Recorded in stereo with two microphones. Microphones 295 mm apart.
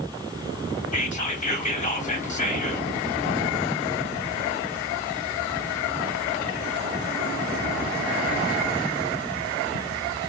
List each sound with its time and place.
0.9 s whispering: 25° left (ahead or behind), 3 m